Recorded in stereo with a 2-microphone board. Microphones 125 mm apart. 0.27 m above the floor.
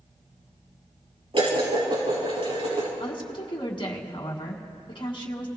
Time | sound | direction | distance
1.3 | dishes clattering | 50° right (ahead or behind) | 4.5 m
3.0 | a woman speaking | 45° left (ahead or behind) | 2 m